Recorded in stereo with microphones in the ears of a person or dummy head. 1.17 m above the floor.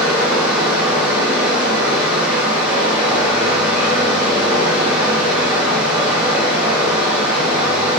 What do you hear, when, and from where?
0.0 s running water: 10° right (ahead or behind), 0.9 m